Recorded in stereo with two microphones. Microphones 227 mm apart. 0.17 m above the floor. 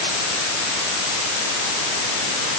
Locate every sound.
Only background noise.